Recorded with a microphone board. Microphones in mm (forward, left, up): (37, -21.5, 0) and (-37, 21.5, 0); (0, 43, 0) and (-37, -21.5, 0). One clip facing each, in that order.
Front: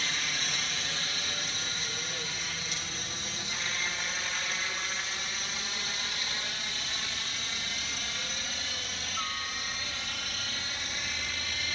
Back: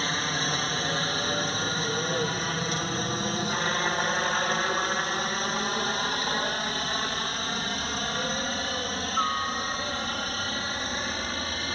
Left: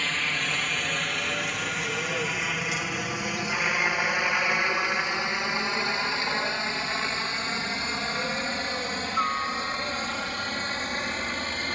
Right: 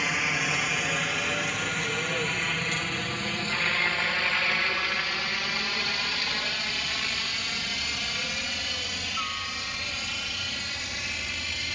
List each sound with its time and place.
0.0 s a helicopter: 165° left; by 11.7 s 105° left